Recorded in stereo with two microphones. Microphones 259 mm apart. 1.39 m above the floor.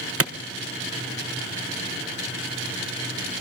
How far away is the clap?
About 1.0 m.